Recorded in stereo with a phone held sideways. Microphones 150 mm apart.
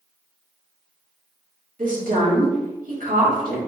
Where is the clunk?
I don't hear a clunk.